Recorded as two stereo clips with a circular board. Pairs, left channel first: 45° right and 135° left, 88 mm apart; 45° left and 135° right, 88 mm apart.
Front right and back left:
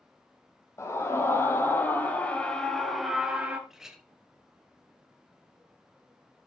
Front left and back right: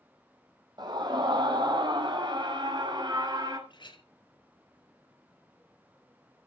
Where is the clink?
50° left, 2 m.